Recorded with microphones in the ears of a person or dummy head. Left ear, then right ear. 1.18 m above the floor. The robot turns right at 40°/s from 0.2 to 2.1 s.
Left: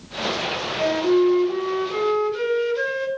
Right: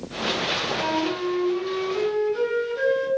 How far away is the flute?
About 6.5 m.